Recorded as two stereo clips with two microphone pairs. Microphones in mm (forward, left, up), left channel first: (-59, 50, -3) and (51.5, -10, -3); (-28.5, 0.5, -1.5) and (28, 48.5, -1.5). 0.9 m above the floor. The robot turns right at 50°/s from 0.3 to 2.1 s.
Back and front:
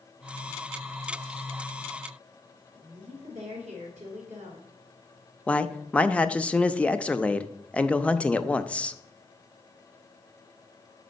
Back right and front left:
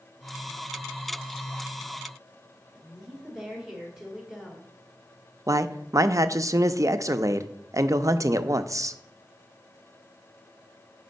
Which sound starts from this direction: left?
A man speaking, at 5.5 s.